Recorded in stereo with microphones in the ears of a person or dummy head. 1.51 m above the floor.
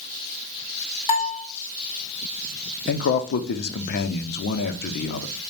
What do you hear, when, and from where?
1.1 s a bell: 20° left (ahead or behind), 1.2 m
2.9 s a man speaking: 50° left (ahead or behind), 0.6 m